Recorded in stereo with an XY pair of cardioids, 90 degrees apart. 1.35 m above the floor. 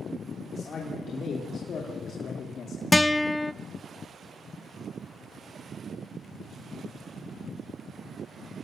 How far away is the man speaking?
About 3.5 m.